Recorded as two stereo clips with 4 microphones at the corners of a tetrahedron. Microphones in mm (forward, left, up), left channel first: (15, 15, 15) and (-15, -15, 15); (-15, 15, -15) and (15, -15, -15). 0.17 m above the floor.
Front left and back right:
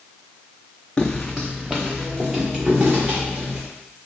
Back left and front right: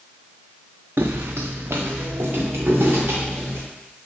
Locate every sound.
1.0 s footsteps: 25° right, 0.5 m; by 3.6 s 80° right, 2 m